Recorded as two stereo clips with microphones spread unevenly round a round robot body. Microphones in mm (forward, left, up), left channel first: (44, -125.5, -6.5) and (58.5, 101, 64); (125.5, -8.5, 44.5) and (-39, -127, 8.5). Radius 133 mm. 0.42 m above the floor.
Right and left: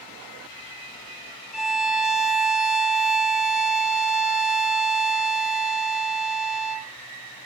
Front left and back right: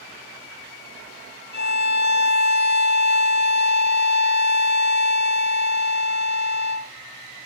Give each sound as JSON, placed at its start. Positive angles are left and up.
{"t": 1.5, "sound": "a violin", "azimuth_deg": 0, "distance_m": 0.8}